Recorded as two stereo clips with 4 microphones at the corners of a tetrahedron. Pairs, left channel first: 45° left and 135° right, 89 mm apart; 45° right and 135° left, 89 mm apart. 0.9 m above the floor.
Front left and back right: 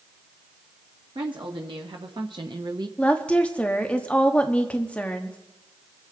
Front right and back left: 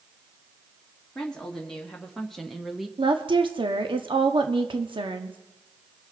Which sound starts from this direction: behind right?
A woman speaking, at 1.1 s.